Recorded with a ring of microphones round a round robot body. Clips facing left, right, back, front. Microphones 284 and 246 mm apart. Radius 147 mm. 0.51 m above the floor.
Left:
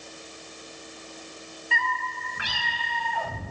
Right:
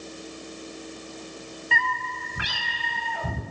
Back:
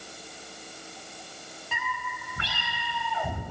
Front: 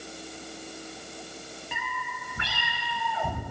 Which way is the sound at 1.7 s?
80° right.